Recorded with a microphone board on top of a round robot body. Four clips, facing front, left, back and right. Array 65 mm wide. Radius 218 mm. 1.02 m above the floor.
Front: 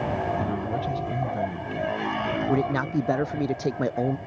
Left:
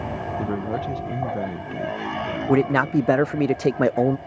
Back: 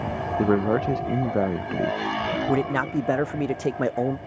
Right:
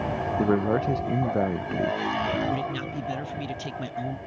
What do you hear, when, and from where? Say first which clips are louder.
0.4 s a man speaking: right 5 dB, back 6 dB; 155° right
2.5 s a man speaking: left 11 dB, back 1 dB; 100° left